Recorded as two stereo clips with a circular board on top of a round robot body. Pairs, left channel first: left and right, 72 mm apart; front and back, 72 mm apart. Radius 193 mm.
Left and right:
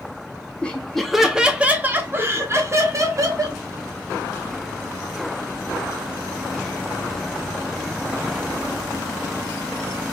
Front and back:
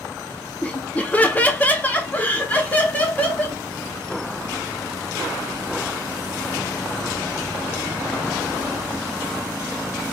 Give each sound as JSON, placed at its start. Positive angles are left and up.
{"t": 0.6, "sound": "laughter", "azimuth_deg": 40, "distance_m": 1.1}